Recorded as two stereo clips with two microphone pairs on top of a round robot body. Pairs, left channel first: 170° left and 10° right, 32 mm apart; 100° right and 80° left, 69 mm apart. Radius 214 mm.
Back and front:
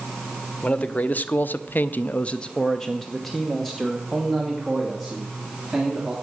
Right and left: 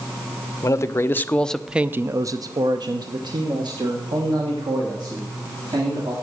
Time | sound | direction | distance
0.6 | a man speaking | 145° right | 1.1 m